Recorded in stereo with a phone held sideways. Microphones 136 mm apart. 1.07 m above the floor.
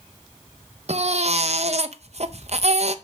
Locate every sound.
0.9 s a baby crying: 55° right (ahead or behind), 0.6 m